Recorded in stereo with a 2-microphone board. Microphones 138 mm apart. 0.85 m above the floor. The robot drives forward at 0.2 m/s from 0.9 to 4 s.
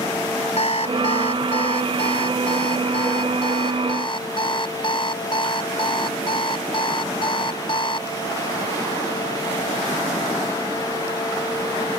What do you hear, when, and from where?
0.6 s an alarm clock: 45° left (ahead or behind); by 8.1 s 40° left (ahead or behind)